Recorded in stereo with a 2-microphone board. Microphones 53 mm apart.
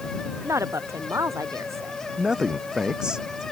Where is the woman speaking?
60° right (ahead or behind).